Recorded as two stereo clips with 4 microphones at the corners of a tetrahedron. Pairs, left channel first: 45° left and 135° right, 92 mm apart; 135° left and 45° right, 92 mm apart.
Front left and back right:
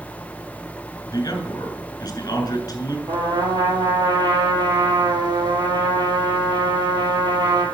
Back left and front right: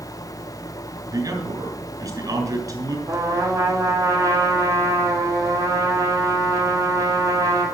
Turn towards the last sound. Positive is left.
turn(degrees=-95)